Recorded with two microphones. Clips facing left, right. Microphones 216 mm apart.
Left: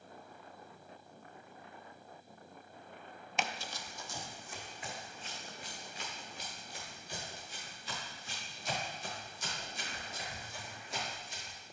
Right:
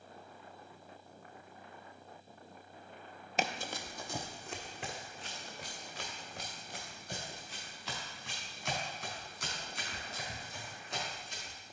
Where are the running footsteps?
40° right (ahead or behind), 0.6 m; by 11.6 s 80° right, 8 m.